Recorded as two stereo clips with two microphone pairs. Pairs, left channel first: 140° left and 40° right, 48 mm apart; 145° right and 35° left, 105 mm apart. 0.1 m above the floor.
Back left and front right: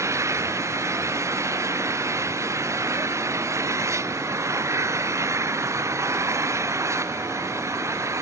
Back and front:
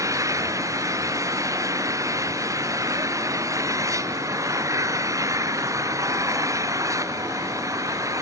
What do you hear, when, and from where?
0.0 s an engine running: 30° right